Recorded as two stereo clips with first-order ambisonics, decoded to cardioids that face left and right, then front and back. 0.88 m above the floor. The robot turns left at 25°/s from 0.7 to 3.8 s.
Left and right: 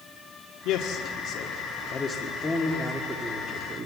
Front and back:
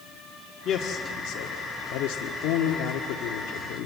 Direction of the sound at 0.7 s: 60° left.